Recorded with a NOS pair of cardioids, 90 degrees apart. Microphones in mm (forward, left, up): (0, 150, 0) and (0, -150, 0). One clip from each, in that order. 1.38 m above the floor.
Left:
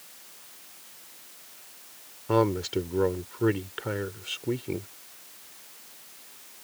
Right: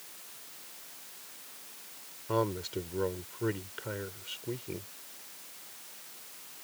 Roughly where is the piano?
No piano in this recording.